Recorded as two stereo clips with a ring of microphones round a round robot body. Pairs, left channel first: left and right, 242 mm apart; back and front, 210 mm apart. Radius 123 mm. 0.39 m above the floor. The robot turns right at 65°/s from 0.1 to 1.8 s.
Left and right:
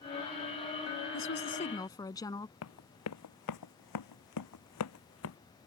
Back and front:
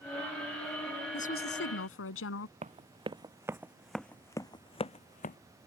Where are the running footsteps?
55° left; by 5.4 s 130° left.